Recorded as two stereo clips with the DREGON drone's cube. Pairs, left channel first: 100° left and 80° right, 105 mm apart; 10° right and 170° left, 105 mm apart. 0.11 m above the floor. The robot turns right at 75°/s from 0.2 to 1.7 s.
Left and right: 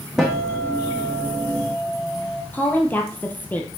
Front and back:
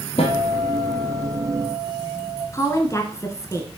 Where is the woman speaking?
35° left, 1.5 m.